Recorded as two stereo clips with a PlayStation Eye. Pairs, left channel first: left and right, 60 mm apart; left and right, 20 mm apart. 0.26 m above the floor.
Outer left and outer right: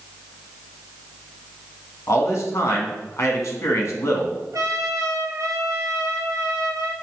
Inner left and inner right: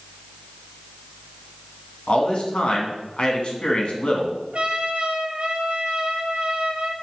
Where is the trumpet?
70° right (ahead or behind), 1.1 m.